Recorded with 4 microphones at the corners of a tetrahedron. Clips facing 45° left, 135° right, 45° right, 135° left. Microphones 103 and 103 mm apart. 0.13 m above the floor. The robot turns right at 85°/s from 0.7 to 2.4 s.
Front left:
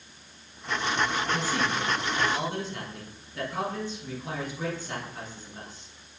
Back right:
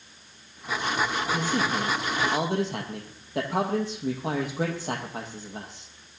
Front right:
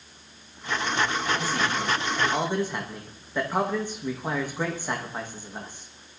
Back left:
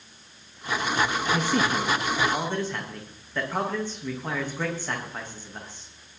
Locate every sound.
1.3 s a man speaking: 145° left, 4.5 m; by 5.9 s 125° right, 4.5 m